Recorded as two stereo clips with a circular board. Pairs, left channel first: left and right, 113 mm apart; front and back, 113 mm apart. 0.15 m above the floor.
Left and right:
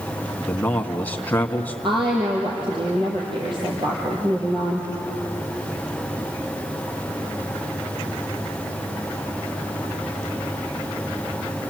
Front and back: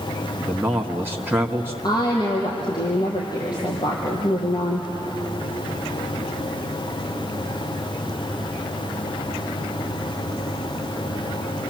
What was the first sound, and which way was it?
A man speaking, 145° left.